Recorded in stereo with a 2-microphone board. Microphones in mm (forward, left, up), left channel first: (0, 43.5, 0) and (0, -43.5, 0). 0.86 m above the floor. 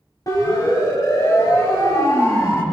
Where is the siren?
50° left (ahead or behind), 5 m; by 2.6 s 40° left (ahead or behind), 4 m.